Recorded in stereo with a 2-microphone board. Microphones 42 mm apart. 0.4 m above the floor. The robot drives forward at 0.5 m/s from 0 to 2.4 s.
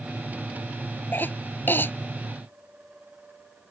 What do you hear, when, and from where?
1.1 s a cough: 50° left (ahead or behind); by 1.9 s 55° left (ahead or behind)